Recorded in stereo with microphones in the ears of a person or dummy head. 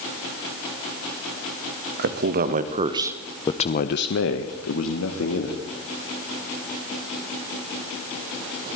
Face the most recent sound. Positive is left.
turn(degrees=80)